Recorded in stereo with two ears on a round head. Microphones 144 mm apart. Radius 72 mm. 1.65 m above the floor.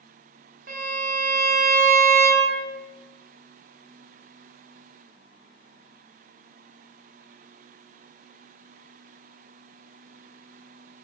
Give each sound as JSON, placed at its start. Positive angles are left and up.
{"t": 0.7, "sound": "a violin", "side_deg": -55, "distance_m": 0.7}